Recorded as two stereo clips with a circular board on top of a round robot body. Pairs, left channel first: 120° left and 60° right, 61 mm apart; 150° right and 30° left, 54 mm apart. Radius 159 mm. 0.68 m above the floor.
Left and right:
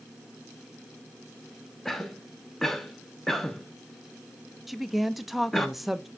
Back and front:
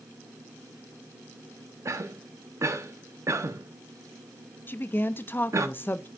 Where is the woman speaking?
145° right, 0.6 m.